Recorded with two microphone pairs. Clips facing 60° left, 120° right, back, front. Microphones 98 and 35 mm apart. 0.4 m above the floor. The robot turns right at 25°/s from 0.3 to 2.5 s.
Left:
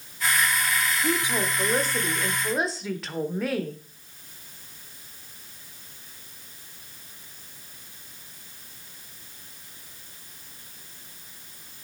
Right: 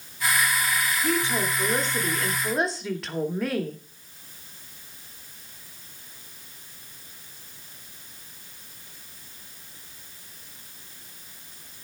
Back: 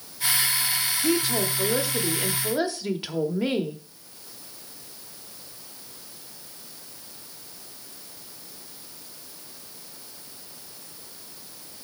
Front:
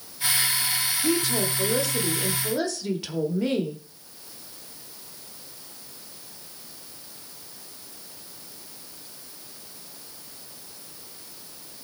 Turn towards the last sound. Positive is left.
turn(degrees=150)